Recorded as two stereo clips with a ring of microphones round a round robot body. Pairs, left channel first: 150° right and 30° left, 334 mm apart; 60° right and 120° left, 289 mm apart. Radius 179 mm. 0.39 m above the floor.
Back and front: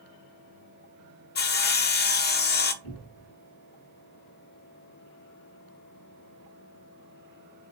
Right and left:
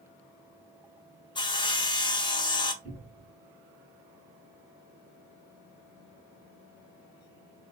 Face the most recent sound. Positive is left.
turn(degrees=-130)